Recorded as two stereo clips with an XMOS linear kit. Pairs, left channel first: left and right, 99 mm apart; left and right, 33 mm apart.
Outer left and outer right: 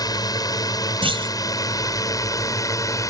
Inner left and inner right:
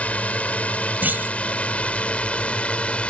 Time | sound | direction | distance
0.0 | a drone | 40° left (ahead or behind) | ?
1.0 | a clunk | 65° right (ahead or behind) | ?